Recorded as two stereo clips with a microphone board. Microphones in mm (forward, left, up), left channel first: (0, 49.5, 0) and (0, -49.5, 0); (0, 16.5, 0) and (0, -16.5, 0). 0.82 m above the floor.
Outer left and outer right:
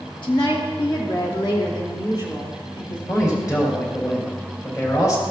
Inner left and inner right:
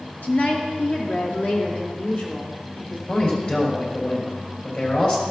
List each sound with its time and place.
0.2 s a woman speaking: 60° left (ahead or behind), 1.7 m; by 3.0 s 50° left (ahead or behind), 4 m
3.1 s a man speaking: 40° left (ahead or behind), 4 m